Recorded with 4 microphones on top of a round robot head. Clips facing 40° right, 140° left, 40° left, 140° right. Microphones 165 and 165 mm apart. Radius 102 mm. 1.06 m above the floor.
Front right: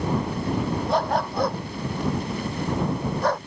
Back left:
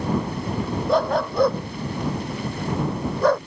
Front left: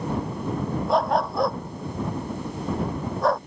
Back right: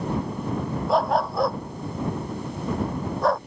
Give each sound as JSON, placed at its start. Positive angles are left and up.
{"t": 0.9, "sound": "a dog barking", "azimuth_deg": 130}